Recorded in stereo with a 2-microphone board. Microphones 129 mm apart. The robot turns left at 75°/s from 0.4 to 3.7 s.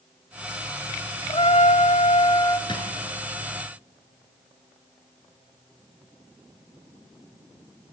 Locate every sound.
1.3 s a trumpet: 130° left, 0.7 m; by 2.6 s 30° left, 0.7 m
2.7 s a drawer: 35° left (ahead or behind), 3.5 m; by 2.9 s 50° left (ahead or behind), 3.5 m